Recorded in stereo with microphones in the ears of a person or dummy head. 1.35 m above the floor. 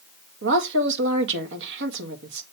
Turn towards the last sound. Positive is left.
turn(degrees=-65)  # may be behind; listen again after turning